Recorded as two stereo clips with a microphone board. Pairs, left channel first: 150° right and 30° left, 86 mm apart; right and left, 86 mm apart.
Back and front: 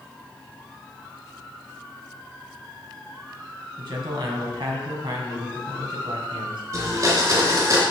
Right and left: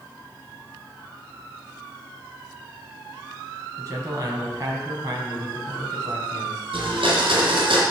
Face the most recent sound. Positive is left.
turn(degrees=75)